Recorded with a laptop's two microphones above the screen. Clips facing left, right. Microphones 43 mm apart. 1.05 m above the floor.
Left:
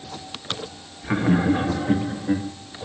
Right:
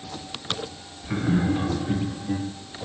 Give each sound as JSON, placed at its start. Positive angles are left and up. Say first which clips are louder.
{"t": 1.0, "sound": "laughter", "louder": "left 4 dB", "side_deg": 55, "distance_m": 1.6}